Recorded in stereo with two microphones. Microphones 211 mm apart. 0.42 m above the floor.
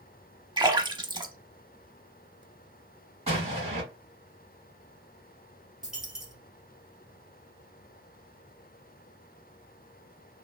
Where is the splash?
20° right (ahead or behind), 0.6 m.